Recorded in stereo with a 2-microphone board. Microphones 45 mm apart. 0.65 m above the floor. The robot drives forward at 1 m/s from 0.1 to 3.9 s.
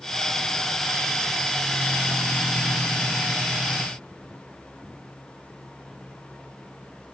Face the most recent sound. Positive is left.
No sound to turn to.